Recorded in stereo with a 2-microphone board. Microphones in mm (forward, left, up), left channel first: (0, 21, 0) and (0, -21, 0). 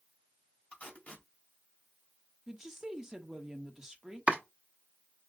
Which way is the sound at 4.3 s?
30° right (ahead or behind).